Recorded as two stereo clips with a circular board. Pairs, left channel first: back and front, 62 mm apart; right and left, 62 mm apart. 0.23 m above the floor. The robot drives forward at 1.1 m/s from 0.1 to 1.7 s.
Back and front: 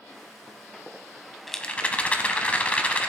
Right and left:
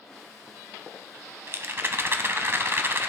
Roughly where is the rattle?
Left.